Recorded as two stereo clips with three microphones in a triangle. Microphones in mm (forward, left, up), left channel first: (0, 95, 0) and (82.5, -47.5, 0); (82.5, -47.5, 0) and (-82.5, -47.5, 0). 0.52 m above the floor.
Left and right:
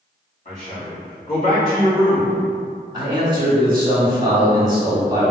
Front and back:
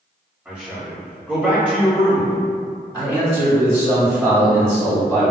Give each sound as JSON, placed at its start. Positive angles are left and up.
{"t": 0.5, "sound": "a man speaking", "azimuth_deg": 100, "distance_m": 1.9}
{"t": 2.9, "sound": "a man speaking", "azimuth_deg": -100, "distance_m": 0.9}